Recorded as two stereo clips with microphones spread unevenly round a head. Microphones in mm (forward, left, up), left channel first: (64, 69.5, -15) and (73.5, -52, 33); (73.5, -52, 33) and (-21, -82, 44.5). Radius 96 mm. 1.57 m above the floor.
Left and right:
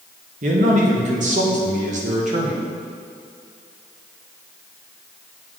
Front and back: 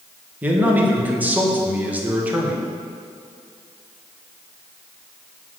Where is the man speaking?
90° right, 1.5 m.